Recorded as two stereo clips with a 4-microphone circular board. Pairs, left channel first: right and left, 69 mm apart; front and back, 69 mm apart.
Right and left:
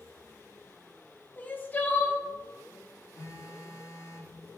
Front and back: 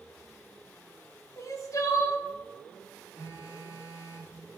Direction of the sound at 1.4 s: 30° right.